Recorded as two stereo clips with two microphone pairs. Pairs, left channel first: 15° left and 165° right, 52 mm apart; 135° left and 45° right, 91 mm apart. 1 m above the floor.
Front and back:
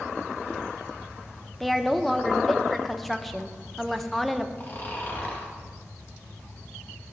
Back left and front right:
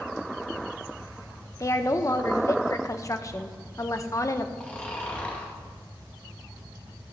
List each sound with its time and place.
1.6 s a woman speaking: 105° left, 0.6 m
4.6 s snoring: 60° left, 1.7 m